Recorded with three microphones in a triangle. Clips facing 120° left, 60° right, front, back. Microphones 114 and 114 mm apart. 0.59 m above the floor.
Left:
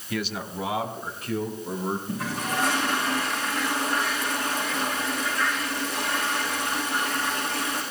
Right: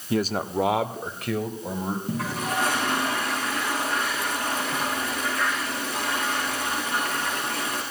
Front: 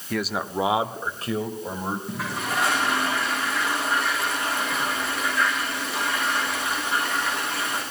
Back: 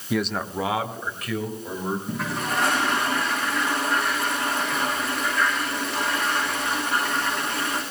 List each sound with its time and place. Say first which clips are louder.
0.1 s a man speaking: right 6 dB, back 1 dB; 105° right, 0.8 m; by 2.0 s 55° right, 3.5 m
2.1 s a toilet flushing: right 1 dB, back 1 dB; 90° right, 8.5 m